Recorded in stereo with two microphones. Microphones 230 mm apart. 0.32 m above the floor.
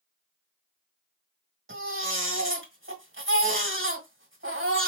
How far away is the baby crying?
About 2.0 m.